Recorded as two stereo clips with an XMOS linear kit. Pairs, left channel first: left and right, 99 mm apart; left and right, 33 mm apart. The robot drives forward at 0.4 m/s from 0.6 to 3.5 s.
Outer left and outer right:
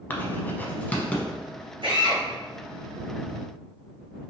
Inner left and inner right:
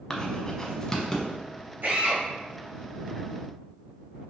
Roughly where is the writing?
Left.